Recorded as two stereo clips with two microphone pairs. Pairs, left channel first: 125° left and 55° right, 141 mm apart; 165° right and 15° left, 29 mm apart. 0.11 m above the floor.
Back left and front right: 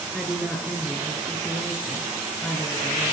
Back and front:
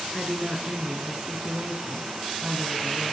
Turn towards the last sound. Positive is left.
turn(degrees=40)